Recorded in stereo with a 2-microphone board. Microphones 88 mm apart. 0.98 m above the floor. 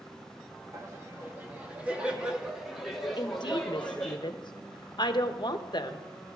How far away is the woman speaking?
About 0.9 m.